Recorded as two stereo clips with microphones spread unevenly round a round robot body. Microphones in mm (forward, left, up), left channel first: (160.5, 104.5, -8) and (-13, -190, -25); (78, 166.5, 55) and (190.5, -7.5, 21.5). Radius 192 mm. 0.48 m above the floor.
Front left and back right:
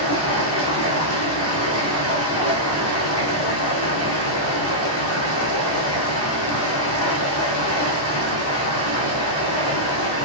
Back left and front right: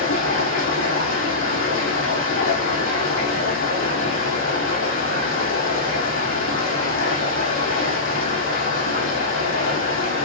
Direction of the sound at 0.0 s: 105° left.